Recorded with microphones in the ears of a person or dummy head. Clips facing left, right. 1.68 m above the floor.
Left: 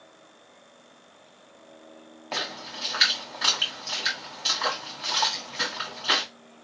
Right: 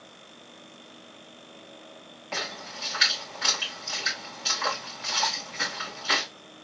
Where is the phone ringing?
No phone ringing in this recording.